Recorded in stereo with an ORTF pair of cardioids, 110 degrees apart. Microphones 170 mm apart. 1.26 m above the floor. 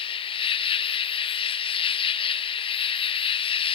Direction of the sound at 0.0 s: 35° left.